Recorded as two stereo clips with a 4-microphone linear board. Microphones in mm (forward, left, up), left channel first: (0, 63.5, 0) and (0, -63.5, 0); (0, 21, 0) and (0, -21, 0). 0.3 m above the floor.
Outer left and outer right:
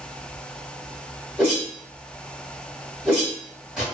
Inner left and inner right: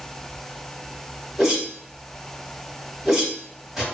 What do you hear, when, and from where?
1.4 s a whoosh: 5° right (ahead or behind), 1.4 m